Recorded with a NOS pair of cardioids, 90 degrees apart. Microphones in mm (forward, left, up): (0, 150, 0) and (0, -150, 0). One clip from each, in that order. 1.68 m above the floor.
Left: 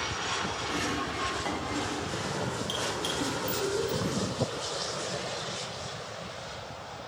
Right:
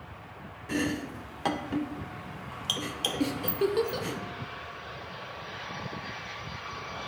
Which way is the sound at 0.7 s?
35° right.